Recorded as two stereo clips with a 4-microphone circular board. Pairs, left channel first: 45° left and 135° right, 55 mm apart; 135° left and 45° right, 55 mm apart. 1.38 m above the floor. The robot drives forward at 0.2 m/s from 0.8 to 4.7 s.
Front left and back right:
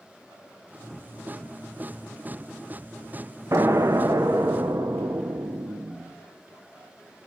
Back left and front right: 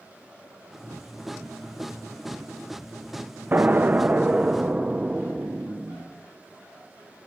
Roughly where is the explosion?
Right.